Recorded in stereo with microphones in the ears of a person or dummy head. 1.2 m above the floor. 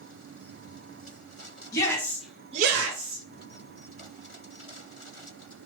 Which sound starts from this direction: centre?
A shout, at 1.7 s.